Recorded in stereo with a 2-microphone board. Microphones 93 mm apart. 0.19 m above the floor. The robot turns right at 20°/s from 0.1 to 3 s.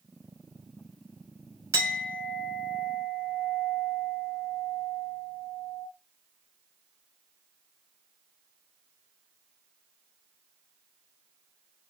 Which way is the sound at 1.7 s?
30° right (ahead or behind).